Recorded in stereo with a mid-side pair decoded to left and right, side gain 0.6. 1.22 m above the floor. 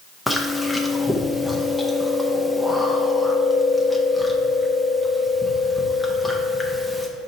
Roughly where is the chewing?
Ahead.